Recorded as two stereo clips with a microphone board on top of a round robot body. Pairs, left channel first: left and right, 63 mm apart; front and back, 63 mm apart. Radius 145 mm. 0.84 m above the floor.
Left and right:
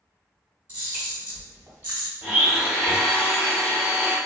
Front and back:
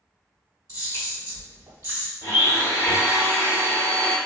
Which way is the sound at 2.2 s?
150° right.